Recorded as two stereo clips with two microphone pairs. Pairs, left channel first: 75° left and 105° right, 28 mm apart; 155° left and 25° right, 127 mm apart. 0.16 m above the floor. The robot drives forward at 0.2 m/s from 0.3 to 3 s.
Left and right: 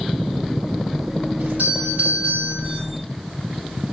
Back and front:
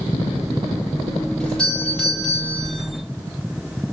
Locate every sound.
1.4 s a doorbell: 120° right, 8 m; by 2.8 s 125° right, 8.5 m